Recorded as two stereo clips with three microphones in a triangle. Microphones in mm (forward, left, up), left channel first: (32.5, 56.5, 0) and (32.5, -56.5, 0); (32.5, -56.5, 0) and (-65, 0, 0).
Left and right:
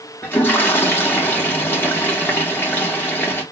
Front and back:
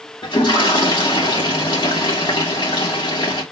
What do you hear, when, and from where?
0.2 s a toilet flushing: 15° left, 2 m